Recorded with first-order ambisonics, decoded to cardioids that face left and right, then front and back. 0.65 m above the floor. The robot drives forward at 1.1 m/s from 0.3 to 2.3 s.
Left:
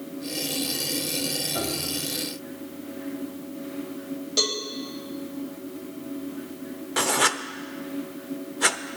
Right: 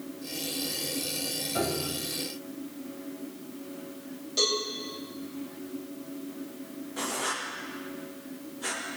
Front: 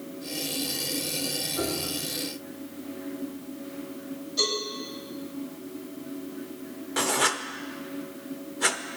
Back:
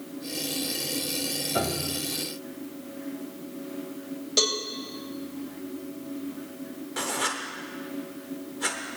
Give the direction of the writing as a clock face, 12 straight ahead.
10 o'clock.